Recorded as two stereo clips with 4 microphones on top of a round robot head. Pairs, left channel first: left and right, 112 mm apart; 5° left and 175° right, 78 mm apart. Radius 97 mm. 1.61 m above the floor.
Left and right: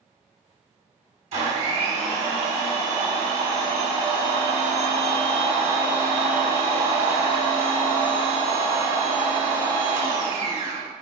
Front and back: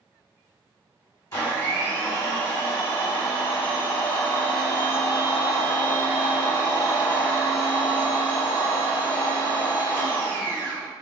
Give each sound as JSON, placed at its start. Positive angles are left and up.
{"t": 1.3, "sound": "a blender", "azimuth_deg": -60, "distance_m": 1.2}